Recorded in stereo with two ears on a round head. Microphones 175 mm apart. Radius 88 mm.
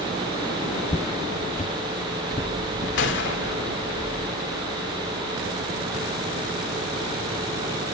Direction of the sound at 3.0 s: 60° left (ahead or behind).